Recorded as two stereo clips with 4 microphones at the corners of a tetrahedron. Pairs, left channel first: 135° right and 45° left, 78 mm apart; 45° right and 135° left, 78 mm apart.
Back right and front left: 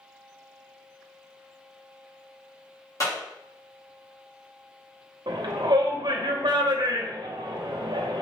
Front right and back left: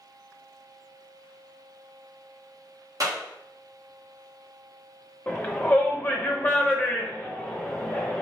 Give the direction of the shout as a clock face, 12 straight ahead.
11 o'clock.